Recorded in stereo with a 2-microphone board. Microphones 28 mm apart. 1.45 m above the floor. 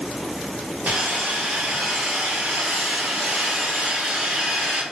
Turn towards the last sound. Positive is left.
turn(degrees=-75)  # may be behind; listen again after turning